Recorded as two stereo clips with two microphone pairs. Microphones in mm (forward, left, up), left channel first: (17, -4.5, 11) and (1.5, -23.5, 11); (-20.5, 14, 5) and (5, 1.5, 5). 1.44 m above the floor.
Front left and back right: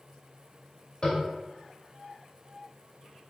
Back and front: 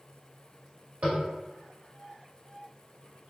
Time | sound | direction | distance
1.0 | tapping | straight ahead | 2 m